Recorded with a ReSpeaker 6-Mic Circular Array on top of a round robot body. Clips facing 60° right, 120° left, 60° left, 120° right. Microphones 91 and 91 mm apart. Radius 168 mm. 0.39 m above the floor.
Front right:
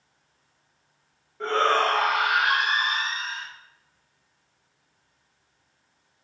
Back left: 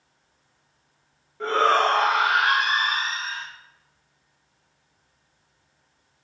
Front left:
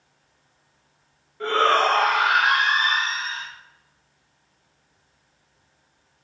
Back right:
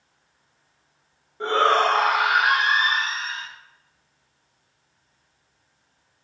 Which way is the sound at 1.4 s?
150° right.